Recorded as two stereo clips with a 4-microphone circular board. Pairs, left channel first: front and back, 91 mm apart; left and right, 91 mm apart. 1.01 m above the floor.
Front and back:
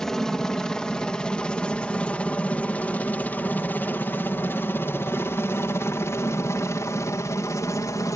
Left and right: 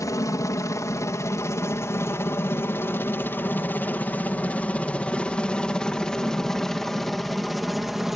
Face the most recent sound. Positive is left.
turn(degrees=-5)